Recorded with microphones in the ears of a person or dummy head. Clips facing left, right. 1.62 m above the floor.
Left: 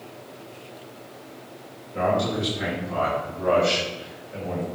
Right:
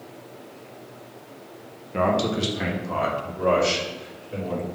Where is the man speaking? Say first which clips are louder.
Right 1 dB; 85° right, 1.6 m; by 4.7 s 75° right (ahead or behind), 3 m.